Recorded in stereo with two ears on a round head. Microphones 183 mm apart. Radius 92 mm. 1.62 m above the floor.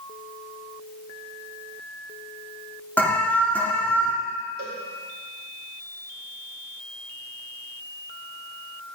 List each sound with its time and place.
3.0 s an alarm: 10° left (ahead or behind), 1.8 m
4.6 s a cowbell: 70° right (ahead or behind), 4.5 m